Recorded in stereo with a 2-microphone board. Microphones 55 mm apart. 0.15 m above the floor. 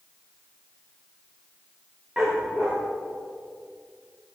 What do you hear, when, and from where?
2.2 s a dog barking: 15° right (ahead or behind), 7.5 m